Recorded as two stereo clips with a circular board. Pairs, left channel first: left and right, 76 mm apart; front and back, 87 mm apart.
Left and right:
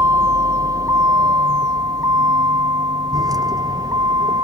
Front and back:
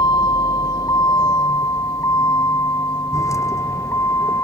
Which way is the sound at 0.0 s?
40° right.